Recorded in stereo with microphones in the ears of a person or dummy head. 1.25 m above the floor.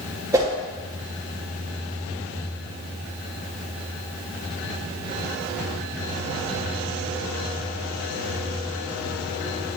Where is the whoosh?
15° right (ahead or behind), 1.1 m.